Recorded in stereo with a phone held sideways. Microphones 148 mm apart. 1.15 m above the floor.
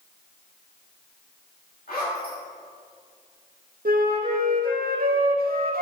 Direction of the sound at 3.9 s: 80° right.